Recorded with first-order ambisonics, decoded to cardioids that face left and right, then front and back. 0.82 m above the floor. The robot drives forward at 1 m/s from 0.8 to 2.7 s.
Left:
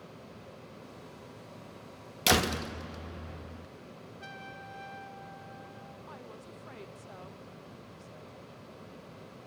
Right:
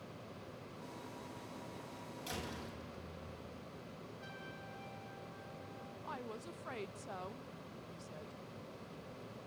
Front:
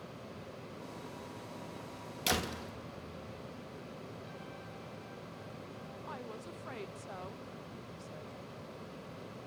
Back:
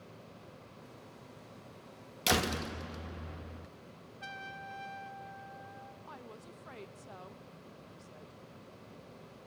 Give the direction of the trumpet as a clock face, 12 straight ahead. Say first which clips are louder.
Left 7 dB, back 4 dB; 7 o'clock.